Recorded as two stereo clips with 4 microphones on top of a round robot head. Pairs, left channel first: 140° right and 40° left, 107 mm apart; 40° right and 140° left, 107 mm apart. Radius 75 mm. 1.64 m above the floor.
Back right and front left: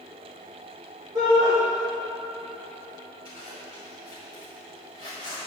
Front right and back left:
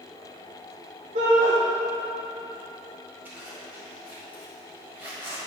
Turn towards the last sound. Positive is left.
turn(degrees=75)